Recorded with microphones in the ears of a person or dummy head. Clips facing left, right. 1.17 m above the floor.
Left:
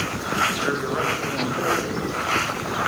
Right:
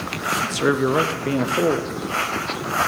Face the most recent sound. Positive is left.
turn(degrees=-55)  # may be behind; listen again after turning